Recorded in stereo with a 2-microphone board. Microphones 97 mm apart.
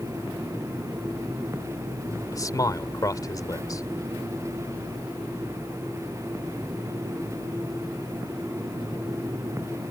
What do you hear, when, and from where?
2.3 s a man speaking: 35° left (ahead or behind)